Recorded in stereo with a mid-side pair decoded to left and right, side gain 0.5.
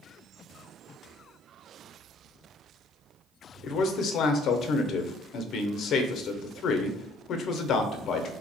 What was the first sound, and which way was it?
A man speaking, 55° left.